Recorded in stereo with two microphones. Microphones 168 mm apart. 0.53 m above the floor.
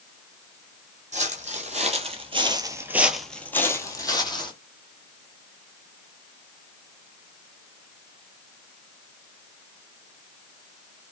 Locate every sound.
1.1 s footsteps: 50° right (ahead or behind), 1.0 m; by 4.5 s 30° left (ahead or behind), 1.0 m